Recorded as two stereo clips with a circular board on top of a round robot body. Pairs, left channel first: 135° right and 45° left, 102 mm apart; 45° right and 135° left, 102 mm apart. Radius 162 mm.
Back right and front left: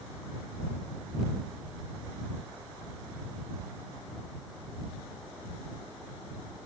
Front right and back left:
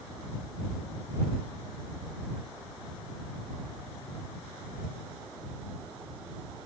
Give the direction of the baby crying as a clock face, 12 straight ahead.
No baby crying in this recording.